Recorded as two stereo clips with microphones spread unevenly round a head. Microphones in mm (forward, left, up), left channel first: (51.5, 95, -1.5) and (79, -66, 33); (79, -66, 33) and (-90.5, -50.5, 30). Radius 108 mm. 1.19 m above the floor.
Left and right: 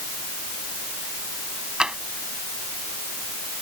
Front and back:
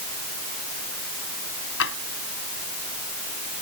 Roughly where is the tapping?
Ahead.